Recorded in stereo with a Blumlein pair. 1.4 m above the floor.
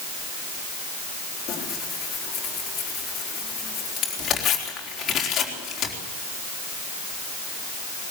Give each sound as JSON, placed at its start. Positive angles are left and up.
{"t": 1.5, "sound": "tearing paper", "azimuth_deg": 25, "distance_m": 4.0}